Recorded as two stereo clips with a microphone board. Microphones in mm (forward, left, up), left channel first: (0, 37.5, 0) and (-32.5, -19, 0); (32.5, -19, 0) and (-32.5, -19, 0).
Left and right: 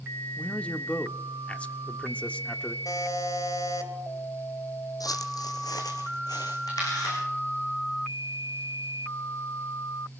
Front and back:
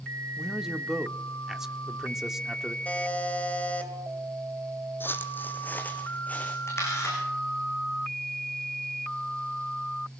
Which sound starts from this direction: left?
A man speaking, at 0.4 s.